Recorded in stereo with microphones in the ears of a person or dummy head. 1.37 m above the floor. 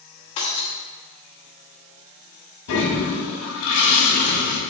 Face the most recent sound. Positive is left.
turn(degrees=85)